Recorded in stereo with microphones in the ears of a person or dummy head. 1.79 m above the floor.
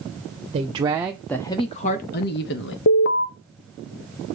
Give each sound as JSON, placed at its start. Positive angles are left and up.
{"t": 0.5, "sound": "a woman speaking", "side_deg": -30, "distance_m": 0.9}
{"t": 2.9, "sound": "an alarm", "side_deg": 50, "distance_m": 0.7}